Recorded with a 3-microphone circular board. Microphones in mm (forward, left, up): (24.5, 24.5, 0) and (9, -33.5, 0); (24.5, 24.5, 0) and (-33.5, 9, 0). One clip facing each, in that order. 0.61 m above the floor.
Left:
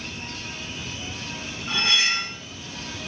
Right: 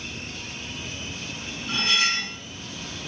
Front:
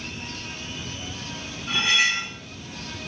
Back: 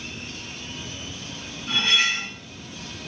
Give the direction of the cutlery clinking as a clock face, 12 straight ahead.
9 o'clock.